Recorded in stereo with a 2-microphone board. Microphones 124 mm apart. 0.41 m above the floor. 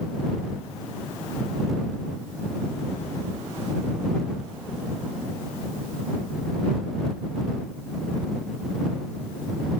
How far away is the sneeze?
I don't hear a sneeze.